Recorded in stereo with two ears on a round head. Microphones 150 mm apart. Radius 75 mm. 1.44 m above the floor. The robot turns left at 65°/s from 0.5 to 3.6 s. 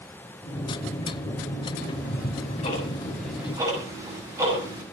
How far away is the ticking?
About 6.5 m.